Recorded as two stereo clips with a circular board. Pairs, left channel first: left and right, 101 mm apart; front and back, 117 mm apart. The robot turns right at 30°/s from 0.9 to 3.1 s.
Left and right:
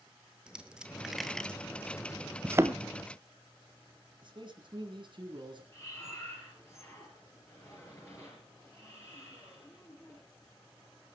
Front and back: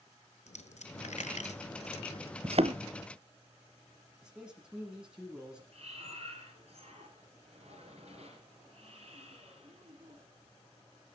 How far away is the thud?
About 0.6 m.